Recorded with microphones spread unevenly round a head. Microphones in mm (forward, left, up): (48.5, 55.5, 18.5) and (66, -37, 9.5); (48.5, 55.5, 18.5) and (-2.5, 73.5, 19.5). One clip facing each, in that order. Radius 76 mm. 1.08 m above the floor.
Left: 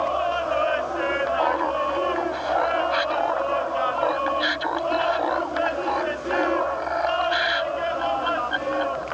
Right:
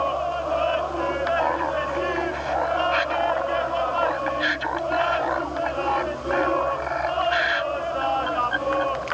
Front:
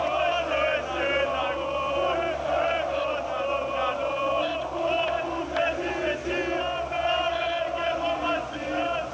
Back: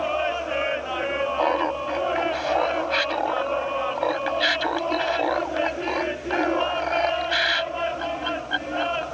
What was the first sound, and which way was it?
Laughter, straight behind.